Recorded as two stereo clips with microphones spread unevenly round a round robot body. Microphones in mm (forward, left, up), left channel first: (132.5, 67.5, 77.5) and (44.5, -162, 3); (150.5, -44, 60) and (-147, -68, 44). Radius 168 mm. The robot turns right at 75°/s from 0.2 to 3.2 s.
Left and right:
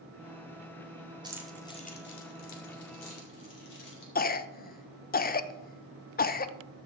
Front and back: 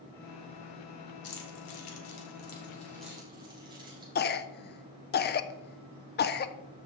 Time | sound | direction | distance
1.2 | keys jangling | 40° right | 2 m
4.2 | a cough | 15° left | 0.6 m